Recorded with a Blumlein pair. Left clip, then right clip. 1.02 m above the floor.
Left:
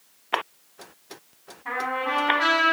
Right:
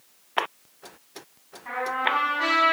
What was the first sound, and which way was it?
A trumpet, 20° left.